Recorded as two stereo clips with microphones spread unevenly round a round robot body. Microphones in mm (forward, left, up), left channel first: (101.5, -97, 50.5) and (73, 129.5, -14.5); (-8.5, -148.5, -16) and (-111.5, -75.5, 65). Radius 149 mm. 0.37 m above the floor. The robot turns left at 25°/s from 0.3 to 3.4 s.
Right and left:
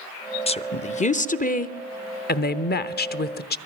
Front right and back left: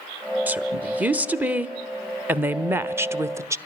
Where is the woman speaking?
15° right, 1.0 m; by 3.6 s 90° right, 1.0 m.